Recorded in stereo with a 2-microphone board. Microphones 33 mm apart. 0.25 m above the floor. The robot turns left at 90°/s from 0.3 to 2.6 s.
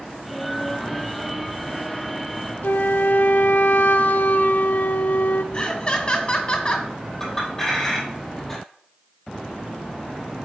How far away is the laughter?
About 1.5 m.